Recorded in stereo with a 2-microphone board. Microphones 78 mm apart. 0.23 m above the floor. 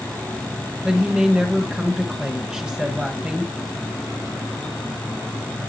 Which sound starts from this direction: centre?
A woman speaking, at 0.8 s.